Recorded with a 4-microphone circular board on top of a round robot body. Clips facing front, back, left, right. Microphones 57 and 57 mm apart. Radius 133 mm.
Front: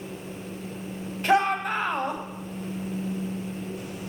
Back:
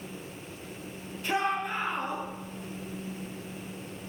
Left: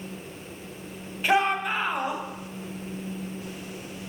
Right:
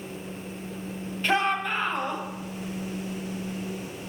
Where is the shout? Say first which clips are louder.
Front 7 dB, left 2 dB; 10° left, 3 m.